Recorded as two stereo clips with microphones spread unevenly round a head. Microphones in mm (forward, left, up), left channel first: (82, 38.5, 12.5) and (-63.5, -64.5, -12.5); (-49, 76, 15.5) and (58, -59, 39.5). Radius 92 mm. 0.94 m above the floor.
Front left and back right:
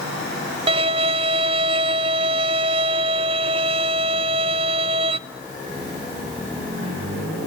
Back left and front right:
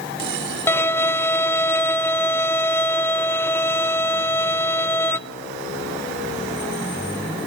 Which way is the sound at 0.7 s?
170° right.